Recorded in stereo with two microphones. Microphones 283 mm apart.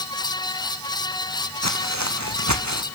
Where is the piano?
I don't hear a piano.